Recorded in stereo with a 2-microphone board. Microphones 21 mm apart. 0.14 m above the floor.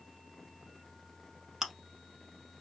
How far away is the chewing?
About 0.6 m.